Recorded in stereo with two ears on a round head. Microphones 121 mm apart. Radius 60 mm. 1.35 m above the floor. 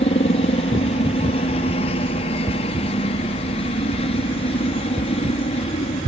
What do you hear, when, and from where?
0.0 s a helicopter: 45° left (ahead or behind)